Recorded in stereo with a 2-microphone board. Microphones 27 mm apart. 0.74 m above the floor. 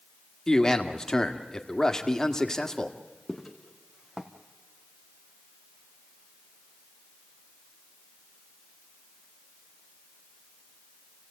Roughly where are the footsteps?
Centre.